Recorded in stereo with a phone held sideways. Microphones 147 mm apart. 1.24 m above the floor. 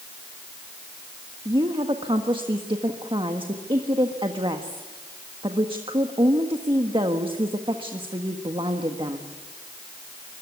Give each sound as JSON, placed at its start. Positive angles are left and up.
{"t": 1.4, "sound": "a woman speaking", "side_deg": -35, "distance_m": 1.5}